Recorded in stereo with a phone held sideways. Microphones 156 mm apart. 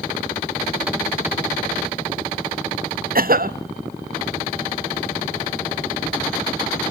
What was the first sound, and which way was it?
A cough, 70° right (ahead or behind).